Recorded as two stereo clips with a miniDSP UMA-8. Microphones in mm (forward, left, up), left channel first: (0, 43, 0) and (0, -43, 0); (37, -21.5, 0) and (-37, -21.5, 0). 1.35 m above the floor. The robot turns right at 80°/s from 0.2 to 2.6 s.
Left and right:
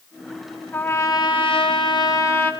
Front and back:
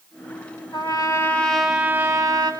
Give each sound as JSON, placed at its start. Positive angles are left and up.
{"t": 0.7, "sound": "a trumpet", "azimuth_deg": 15, "distance_m": 6.5}